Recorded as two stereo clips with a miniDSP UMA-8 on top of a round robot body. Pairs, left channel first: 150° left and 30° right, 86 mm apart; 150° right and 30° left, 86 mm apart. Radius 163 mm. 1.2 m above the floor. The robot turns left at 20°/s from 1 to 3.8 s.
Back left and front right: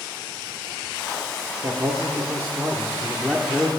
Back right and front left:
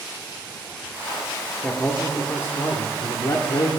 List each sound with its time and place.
1.6 s a man speaking: 80° right, 1.1 m; by 3.7 s 120° right, 1.1 m